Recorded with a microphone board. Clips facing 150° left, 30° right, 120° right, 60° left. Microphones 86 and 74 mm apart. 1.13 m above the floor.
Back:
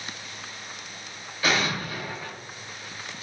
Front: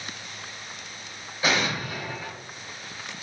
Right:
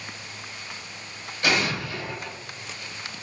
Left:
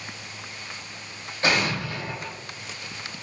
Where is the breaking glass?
No breaking glass in this recording.